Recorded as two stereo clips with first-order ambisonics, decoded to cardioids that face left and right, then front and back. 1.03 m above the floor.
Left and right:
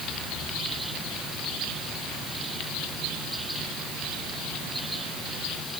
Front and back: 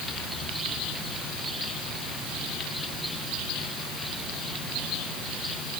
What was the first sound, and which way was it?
Only background noise.